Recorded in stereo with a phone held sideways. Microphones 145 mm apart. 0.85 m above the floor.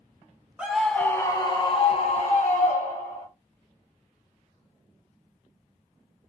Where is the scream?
5° right (ahead or behind), 0.6 m; by 3.3 s 60° left (ahead or behind), 1.5 m.